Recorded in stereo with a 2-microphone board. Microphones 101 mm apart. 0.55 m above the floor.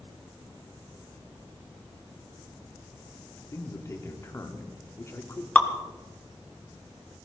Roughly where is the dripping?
Centre.